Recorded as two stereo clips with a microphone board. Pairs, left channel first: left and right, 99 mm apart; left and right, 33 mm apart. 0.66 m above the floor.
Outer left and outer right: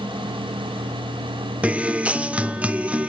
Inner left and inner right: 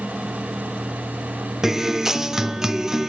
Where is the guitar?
15° right (ahead or behind), 0.6 m.